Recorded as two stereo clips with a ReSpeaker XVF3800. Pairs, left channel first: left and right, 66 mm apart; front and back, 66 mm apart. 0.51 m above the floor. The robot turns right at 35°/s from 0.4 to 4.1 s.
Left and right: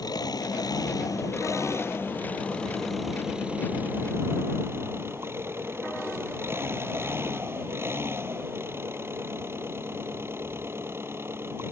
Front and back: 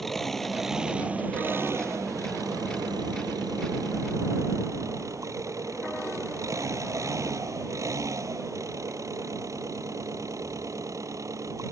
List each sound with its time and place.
0.0 s an engine running: 90° left; by 11.7 s 145° right